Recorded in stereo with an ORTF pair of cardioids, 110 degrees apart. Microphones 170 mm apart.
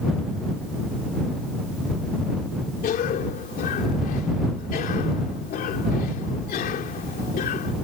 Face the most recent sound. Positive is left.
turn(degrees=60)